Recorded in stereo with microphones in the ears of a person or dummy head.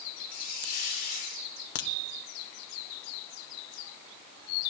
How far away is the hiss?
About 5 m.